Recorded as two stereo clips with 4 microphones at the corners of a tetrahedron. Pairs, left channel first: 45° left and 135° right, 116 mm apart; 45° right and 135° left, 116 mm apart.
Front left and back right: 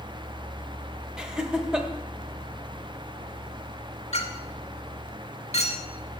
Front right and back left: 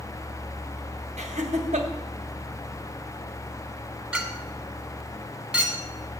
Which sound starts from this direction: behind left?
Laughter, at 1.2 s.